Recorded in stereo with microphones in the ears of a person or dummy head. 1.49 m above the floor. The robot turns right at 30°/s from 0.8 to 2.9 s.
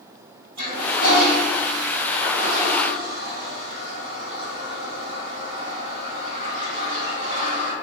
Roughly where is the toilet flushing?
Right.